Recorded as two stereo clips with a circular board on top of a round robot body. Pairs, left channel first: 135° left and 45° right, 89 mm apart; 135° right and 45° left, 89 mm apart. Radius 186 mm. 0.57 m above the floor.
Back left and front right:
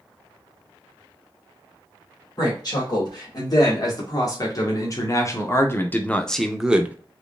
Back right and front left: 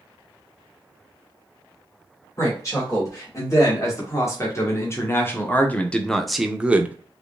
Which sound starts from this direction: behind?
A woman speaking, at 2.4 s.